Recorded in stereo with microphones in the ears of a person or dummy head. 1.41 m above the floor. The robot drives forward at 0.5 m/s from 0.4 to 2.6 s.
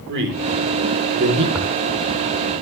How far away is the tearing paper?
About 1.7 m.